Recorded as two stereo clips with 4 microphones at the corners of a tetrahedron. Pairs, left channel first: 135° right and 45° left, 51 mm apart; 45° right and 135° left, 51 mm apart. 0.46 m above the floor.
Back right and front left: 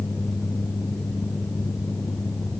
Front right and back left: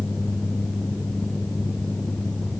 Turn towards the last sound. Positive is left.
No sound to turn to.